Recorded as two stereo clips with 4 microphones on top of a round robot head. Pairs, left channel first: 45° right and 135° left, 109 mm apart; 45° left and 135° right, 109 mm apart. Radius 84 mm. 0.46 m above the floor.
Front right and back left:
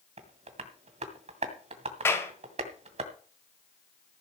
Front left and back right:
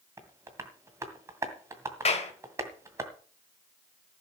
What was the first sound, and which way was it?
Tapping, 160° left.